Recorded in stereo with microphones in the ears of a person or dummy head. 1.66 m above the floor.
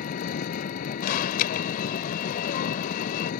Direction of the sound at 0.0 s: 50° left (ahead or behind).